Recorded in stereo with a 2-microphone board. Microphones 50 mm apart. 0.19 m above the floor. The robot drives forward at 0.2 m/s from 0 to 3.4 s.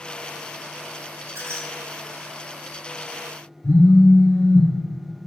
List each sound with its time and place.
1.3 s a squeak: 60° right (ahead or behind), 0.8 m
3.6 s a phone buzzing: 70° left (ahead or behind), 1.2 m